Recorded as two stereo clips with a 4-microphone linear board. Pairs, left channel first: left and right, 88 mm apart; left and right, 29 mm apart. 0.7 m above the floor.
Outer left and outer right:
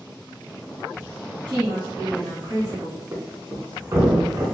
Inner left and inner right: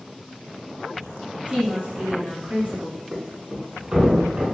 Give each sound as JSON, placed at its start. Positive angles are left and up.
{"t": 1.5, "sound": "a woman speaking", "side_deg": -50, "distance_m": 1.5}
{"t": 3.1, "sound": "a thud", "side_deg": -35, "distance_m": 0.7}